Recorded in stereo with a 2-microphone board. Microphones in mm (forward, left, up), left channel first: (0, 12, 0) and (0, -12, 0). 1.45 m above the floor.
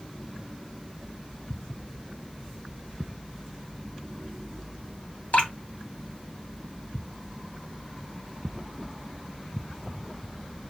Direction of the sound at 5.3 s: 70° left (ahead or behind).